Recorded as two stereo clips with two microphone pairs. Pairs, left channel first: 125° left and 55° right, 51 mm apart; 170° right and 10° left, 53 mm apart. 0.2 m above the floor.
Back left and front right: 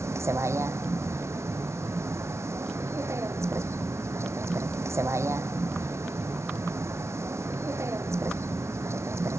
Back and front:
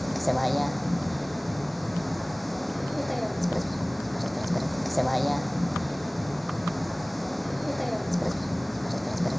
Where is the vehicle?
80° right.